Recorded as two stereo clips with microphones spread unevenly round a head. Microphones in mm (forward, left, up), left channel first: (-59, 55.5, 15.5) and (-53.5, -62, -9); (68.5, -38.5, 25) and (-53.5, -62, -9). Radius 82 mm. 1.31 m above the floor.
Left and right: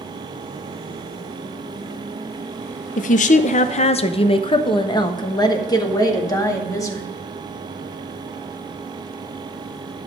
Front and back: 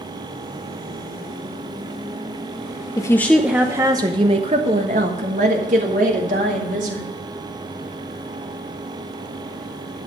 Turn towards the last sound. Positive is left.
turn(degrees=155)